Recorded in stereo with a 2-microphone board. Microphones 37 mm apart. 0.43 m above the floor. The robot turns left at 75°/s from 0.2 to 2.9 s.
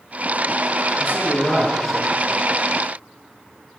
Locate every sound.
1.0 s a man speaking: 80° left, 6 m; by 2.1 s 10° right, 6 m